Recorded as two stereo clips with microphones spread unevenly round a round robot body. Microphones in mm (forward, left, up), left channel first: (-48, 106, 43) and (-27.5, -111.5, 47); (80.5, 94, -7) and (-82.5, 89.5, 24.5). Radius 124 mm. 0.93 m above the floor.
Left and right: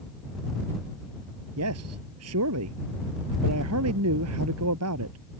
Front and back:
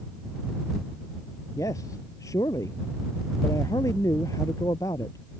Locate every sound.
1.6 s a man speaking: 75° right